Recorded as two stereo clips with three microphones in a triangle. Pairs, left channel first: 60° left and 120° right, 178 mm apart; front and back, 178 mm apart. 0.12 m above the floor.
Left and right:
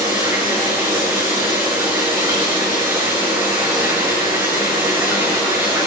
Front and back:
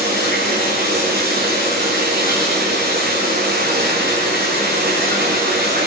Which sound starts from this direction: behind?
Running water, at 0.0 s.